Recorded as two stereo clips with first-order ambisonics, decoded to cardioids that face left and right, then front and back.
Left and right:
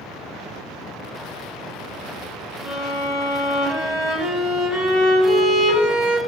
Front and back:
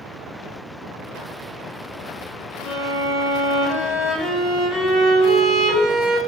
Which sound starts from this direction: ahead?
A violin, at 2.6 s.